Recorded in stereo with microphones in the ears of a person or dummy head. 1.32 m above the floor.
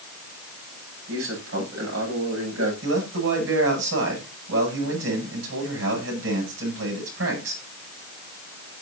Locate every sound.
1.1 s a man speaking: 75° right (ahead or behind), 9 m
2.8 s a man speaking: 75° right (ahead or behind), 9.5 m